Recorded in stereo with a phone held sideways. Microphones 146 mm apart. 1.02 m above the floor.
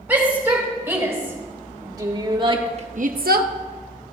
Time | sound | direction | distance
0.1 | a shout | 15° right (ahead or behind) | 5 m